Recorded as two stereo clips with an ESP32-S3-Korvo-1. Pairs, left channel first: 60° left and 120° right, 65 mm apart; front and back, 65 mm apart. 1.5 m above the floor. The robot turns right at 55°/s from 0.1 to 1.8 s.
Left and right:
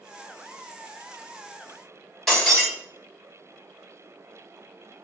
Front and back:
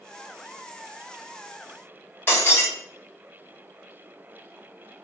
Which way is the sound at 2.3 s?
25° right.